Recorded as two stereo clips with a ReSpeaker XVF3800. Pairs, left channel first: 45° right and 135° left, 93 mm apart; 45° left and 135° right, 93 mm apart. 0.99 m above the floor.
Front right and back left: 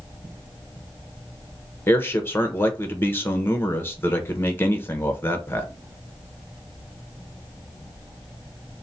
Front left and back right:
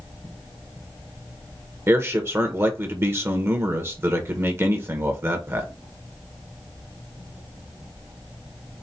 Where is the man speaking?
95° right, 0.8 m.